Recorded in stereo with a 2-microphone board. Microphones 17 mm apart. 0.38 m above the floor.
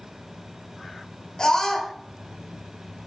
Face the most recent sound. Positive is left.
turn(degrees=45)  # may be behind; listen again after turning